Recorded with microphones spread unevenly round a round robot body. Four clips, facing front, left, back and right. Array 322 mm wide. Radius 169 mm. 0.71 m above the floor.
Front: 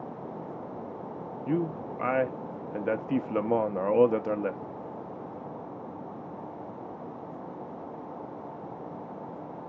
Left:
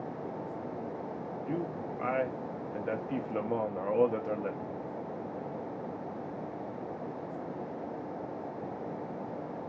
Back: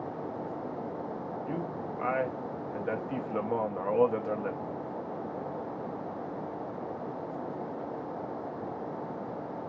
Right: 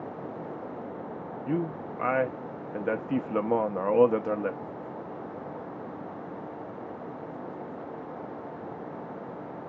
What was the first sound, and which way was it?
A man speaking, 40° right.